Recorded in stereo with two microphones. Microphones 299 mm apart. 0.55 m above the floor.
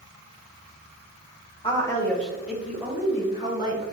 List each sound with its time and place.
1.6 s a woman speaking: 20° left (ahead or behind), 2.5 m; by 3.8 s 15° right (ahead or behind), 5 m